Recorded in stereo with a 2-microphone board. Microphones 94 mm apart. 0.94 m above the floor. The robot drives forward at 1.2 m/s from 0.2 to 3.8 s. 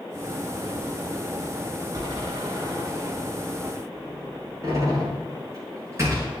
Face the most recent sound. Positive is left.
turn(degrees=-35)  # may be behind; listen again after turning